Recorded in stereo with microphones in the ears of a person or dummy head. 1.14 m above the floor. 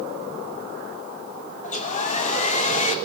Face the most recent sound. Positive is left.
turn(degrees=40)  # may be behind; listen again after turning